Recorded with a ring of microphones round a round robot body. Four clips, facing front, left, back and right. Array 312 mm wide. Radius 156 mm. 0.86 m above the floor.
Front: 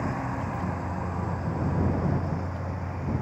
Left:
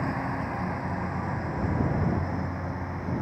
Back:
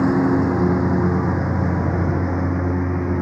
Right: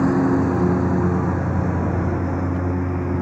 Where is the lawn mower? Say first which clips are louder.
Right 13 dB, back 14 dB; 140° right; by 3.2 s 150° right.